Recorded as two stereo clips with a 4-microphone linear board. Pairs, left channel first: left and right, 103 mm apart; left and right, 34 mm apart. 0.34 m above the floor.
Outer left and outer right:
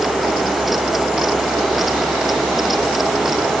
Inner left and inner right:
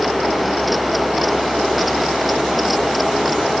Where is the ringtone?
I don't hear a ringtone.